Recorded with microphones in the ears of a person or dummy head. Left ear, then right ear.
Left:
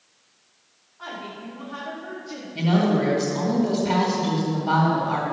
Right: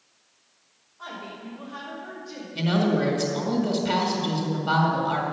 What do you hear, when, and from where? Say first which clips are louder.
1.0 s a woman speaking: left 2 dB; 15° left (ahead or behind), 4.5 m; by 2.5 s 20° left (ahead or behind), 3 m
2.5 s a woman speaking: left 2 dB; 20° right (ahead or behind), 2.5 m